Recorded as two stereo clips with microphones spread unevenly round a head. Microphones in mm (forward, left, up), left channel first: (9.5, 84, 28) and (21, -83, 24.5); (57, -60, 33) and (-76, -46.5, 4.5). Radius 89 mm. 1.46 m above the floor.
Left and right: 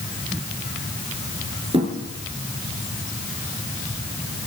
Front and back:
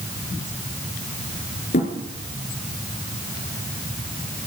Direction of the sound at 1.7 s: 25° right.